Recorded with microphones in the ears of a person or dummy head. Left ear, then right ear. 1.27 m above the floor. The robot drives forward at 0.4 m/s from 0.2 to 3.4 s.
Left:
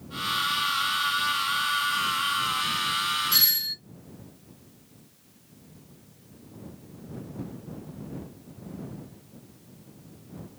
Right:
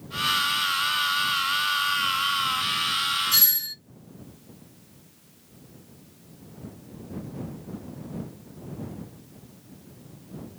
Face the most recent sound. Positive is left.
turn(degrees=-5)  # may be behind; listen again after turning